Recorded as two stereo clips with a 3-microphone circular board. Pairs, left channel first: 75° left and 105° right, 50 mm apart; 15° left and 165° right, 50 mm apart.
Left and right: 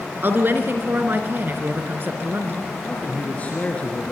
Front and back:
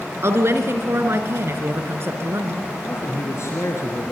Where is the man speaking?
15° left, 3 m.